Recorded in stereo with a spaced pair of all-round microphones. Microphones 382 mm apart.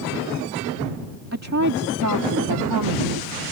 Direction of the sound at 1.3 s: 40° right (ahead or behind).